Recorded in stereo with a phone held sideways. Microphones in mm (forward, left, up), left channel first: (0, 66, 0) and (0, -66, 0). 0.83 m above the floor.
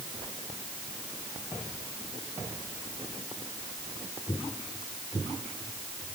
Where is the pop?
I don't hear a pop.